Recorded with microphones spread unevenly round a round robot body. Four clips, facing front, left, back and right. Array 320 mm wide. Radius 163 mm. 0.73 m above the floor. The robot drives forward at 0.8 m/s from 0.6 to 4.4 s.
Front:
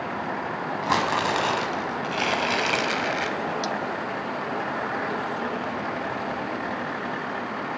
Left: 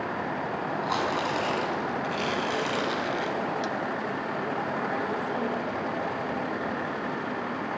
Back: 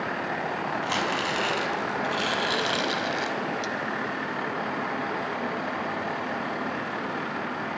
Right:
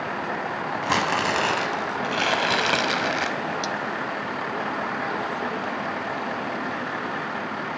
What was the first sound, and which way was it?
Crumpling, 50° right.